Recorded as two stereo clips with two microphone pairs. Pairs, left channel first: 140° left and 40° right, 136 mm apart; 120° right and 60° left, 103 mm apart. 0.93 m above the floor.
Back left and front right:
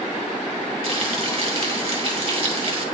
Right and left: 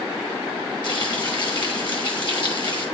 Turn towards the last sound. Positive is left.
turn(degrees=-80)